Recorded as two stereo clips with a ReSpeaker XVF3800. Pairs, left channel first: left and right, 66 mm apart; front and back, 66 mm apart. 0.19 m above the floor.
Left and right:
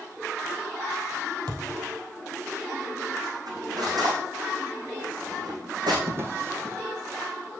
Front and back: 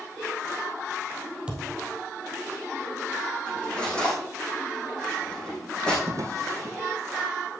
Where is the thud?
105° right, 3 m.